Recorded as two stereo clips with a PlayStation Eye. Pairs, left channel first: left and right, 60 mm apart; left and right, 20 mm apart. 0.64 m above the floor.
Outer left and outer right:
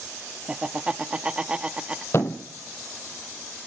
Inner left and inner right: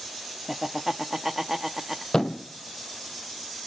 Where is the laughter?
20° right (ahead or behind), 0.7 m.